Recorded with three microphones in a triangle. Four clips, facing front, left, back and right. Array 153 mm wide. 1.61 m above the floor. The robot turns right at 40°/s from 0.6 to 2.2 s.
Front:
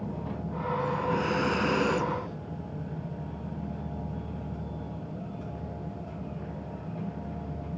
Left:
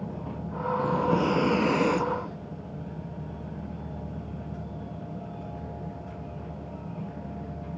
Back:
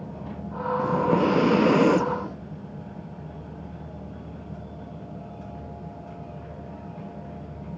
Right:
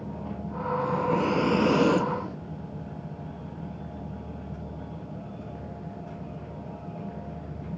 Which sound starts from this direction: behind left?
Breathing, at 0.8 s.